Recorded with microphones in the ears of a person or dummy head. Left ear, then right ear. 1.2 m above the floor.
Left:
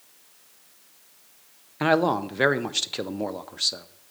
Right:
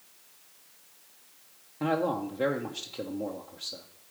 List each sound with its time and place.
1.8 s a man speaking: 55° left (ahead or behind), 0.5 m